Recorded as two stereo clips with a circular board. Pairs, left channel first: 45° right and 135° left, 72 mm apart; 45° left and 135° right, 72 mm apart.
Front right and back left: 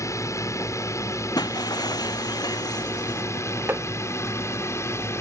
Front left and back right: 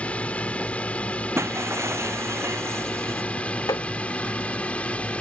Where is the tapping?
75° left.